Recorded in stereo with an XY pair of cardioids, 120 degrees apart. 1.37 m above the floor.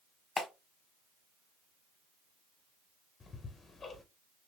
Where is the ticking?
30° left, 1.1 m.